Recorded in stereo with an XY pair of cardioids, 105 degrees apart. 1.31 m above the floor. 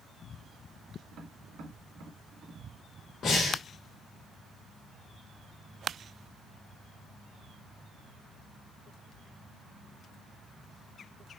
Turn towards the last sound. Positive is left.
turn(degrees=60)